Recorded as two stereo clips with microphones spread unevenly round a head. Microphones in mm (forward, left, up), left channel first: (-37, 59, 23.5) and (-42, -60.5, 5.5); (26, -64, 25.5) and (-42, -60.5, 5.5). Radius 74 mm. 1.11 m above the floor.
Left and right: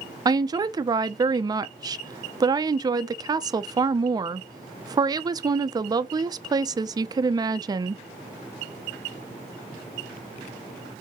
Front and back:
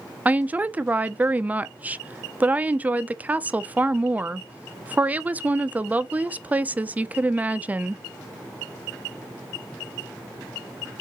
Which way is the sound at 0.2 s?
135° right.